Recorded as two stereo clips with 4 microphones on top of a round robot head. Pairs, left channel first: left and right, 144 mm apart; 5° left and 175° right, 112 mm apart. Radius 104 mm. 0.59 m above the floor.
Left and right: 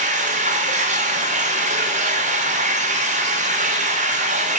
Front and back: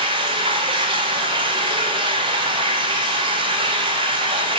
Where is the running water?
125° right, 1.9 m.